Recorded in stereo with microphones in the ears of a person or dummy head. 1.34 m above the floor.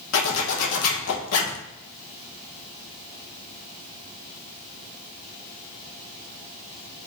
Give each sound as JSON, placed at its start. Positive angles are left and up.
{"t": 0.1, "sound": "a zipper", "side_deg": 70, "distance_m": 0.9}